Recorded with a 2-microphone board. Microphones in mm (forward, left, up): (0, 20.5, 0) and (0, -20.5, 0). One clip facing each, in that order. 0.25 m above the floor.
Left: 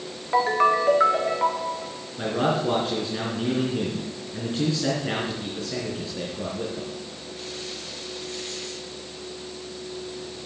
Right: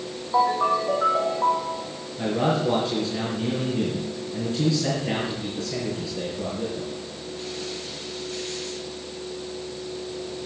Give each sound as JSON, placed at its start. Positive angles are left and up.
{"t": 0.3, "sound": "a ringtone", "side_deg": 65, "distance_m": 1.7}
{"t": 2.2, "sound": "a man speaking", "side_deg": 30, "distance_m": 3.5}